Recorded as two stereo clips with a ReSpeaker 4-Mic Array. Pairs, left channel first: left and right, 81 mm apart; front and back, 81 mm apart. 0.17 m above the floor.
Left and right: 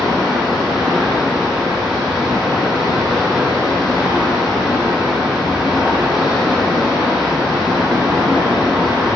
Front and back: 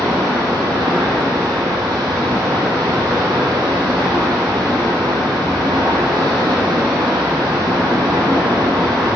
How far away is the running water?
About 0.9 m.